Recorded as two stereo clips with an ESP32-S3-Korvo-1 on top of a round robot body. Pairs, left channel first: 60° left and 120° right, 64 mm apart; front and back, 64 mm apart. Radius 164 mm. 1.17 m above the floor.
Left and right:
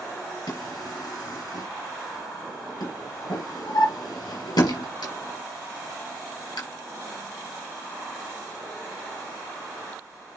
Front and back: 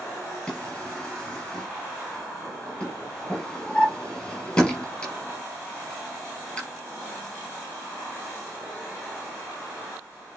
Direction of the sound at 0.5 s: 80° left.